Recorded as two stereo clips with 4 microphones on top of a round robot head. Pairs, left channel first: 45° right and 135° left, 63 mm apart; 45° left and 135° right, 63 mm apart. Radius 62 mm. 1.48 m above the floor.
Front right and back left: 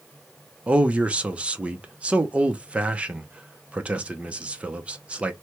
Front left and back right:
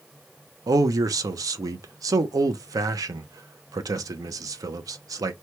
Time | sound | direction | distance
0.7 | a man speaking | 155° right | 0.6 m